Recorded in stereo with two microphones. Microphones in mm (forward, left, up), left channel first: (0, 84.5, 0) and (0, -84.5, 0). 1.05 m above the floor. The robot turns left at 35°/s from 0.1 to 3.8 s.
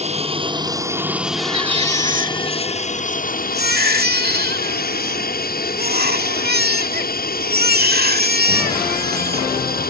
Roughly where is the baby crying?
Ahead right.